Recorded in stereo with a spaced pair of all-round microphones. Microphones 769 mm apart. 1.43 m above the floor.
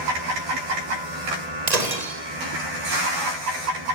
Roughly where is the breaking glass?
Right.